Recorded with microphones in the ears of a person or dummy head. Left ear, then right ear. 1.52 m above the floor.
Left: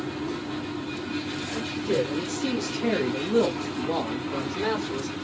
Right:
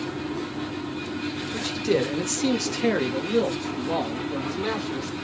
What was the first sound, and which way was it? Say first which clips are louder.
A man speaking: right 2 dB; 70° right (ahead or behind).